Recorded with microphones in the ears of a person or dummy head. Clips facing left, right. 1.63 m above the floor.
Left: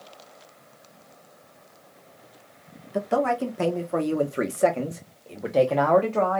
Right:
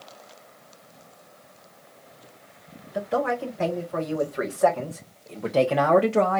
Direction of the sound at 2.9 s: 60° left (ahead or behind).